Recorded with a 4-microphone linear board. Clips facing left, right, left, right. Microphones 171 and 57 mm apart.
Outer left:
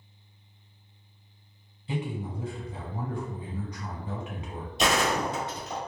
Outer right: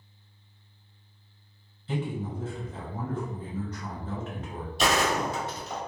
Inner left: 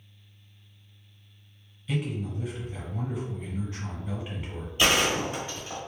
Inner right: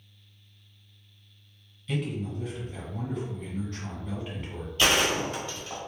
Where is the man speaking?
15° left (ahead or behind), 1.0 m.